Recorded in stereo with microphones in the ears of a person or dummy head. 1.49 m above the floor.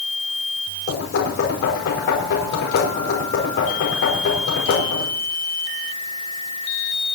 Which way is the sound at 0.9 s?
65° left (ahead or behind).